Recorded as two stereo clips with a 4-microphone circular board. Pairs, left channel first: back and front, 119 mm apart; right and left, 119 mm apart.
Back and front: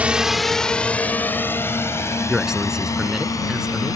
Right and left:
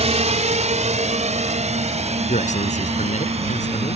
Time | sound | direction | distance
0.0 | a drone | 80° left | ?
2.3 | a man speaking | 85° right | ?